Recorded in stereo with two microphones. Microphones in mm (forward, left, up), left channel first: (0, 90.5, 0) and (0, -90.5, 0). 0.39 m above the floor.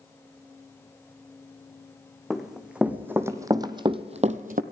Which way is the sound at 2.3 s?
Centre (ahead or behind).